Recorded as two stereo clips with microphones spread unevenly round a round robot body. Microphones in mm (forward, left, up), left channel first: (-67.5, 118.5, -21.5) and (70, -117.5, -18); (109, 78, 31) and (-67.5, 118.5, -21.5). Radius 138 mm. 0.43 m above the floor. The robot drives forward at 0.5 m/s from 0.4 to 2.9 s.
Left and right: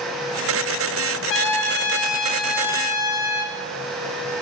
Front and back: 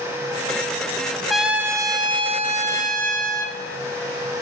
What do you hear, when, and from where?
1.3 s a trumpet: 95° left, 0.8 m; by 3.5 s 145° left, 1.2 m